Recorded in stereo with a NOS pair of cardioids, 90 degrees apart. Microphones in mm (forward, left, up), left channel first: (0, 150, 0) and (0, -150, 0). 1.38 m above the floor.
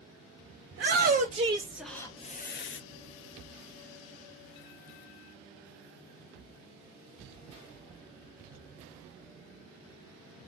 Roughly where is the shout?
Ahead right.